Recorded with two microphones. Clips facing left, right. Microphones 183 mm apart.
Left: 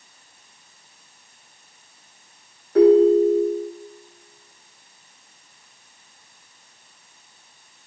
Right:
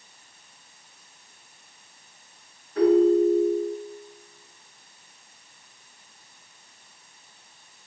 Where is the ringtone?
75° left (ahead or behind), 3 m.